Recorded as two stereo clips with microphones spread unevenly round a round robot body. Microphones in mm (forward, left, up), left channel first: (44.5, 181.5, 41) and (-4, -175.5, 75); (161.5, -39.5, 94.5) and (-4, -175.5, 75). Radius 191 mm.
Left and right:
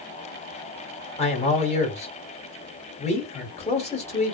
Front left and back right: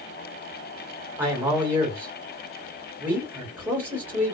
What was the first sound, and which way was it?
A man speaking, 145° left.